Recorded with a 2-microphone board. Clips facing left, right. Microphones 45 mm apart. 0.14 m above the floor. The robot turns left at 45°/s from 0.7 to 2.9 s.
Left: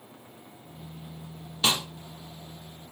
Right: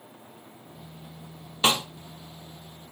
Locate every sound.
1.6 s a snare drum: 35° right (ahead or behind), 1.4 m; by 1.9 s 40° right (ahead or behind), 1.4 m